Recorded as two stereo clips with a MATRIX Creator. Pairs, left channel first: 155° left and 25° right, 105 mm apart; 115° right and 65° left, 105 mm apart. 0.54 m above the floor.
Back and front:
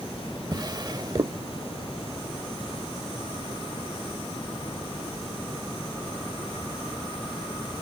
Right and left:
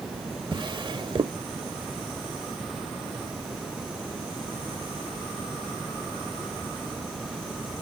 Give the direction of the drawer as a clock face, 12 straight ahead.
11 o'clock.